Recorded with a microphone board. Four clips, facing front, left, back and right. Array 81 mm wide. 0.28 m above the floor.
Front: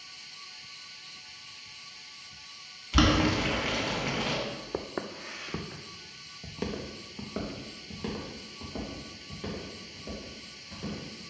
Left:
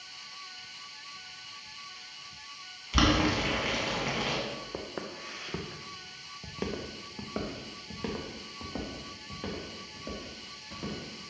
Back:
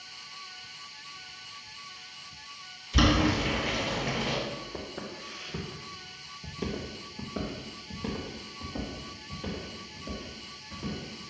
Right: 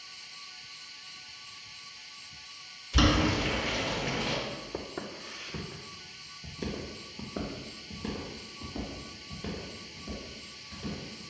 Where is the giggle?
No giggle in this recording.